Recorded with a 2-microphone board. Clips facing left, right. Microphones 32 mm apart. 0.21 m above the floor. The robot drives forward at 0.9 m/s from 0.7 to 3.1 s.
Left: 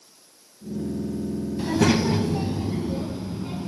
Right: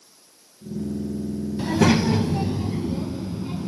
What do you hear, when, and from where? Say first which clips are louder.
1.6 s a child speaking: right 2 dB; 10° right (ahead or behind), 0.8 m; by 3.7 s 5° right (ahead or behind), 1.2 m